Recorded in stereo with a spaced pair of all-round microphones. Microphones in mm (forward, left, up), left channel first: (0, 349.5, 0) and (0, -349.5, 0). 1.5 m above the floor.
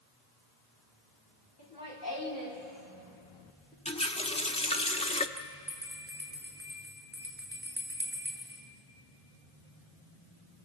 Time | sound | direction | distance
1.6 | laughter | 35° left (ahead or behind) | 5 m
3.9 | a running tap | 10° left (ahead or behind) | 0.8 m
5.4 | a bell | 5° right (ahead or behind) | 6.5 m